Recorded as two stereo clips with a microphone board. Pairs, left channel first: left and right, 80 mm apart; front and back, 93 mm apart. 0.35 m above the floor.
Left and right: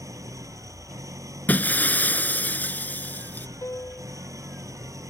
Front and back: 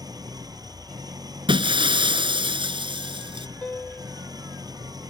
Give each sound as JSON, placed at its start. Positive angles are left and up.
{"t": 0.0, "sound": "an engine running", "azimuth_deg": -135}
{"t": 1.5, "sound": "breaking glass", "azimuth_deg": 160}
{"t": 3.6, "sound": "a piano", "azimuth_deg": 70}